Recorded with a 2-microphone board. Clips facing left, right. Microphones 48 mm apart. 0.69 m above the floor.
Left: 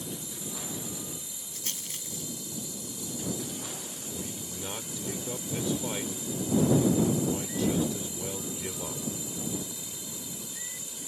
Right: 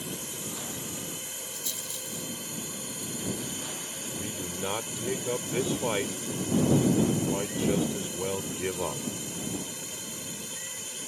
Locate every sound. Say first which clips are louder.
0.0 s a drone: right 2 dB; 60° right (ahead or behind)
1.5 s a rattle: right 2 dB; 55° left (ahead or behind)
4.0 s a man speaking: right 3 dB; 35° right (ahead or behind)